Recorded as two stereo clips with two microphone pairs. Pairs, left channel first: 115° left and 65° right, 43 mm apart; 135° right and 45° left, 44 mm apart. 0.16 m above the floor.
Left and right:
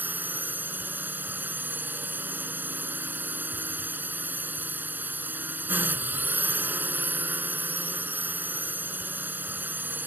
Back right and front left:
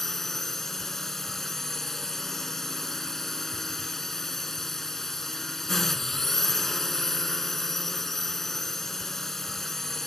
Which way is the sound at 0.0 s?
55° right.